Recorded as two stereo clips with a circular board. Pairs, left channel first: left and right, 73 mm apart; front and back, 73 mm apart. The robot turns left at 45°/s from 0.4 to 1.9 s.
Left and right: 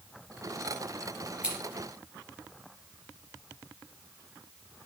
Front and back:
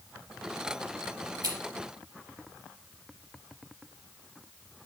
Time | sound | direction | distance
1.4 | scissors | 165° right | 3 m